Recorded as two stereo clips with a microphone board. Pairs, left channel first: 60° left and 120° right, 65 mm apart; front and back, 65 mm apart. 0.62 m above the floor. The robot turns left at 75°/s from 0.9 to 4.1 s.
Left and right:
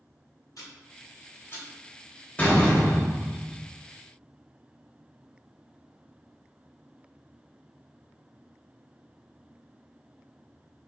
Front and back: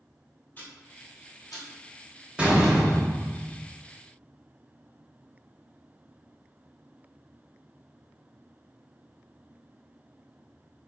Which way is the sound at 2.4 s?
120° left.